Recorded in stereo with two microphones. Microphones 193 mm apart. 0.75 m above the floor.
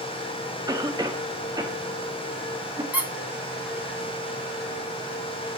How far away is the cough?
About 0.7 m.